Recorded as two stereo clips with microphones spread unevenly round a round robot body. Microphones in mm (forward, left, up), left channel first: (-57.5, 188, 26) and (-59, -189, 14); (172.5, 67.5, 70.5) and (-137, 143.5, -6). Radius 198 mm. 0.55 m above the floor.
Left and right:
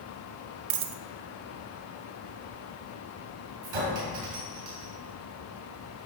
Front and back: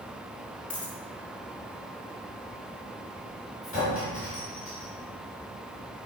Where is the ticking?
I don't hear ticking.